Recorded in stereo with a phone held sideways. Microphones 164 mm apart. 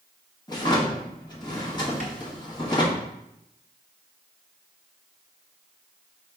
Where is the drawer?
25° left (ahead or behind), 1.0 m.